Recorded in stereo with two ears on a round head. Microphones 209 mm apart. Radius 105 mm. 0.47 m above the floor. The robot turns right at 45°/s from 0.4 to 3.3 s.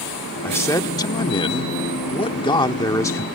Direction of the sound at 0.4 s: 10° left (ahead or behind).